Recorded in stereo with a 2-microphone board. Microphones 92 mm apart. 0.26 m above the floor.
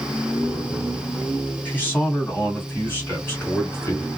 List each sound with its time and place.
1.6 s a man speaking: 20° left (ahead or behind), 2.5 m; by 4.1 s 25° left (ahead or behind), 1.6 m